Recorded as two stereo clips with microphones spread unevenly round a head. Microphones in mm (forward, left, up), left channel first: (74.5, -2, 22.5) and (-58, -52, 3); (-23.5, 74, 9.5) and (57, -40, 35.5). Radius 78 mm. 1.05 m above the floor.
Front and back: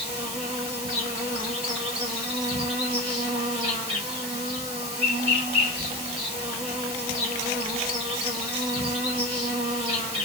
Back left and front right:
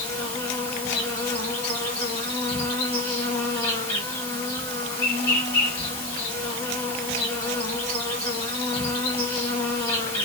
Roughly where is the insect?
Behind.